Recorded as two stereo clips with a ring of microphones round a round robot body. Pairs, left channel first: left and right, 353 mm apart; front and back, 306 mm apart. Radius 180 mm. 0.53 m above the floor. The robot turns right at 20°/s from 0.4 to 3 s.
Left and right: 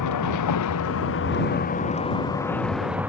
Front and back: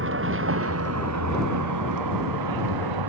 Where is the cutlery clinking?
No cutlery clinking in this recording.